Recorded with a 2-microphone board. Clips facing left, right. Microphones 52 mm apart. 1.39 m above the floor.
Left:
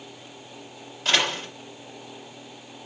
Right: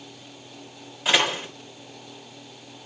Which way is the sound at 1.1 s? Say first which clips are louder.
Right 2 dB; 10° right (ahead or behind).